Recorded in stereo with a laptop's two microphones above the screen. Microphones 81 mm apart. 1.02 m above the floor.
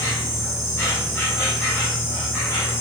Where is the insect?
30° left (ahead or behind), 2 m.